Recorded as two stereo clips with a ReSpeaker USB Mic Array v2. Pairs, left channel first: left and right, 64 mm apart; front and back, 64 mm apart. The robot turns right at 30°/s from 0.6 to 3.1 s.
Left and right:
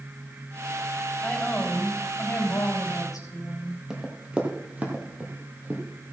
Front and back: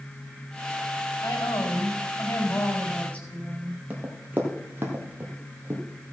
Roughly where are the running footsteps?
Behind right.